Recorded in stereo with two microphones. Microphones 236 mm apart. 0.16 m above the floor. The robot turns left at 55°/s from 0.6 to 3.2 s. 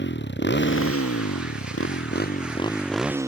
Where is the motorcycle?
50° left (ahead or behind); by 3.3 s 10° right (ahead or behind).